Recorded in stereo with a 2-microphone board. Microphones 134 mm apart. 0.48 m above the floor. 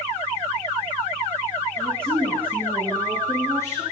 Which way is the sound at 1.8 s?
5° left (ahead or behind).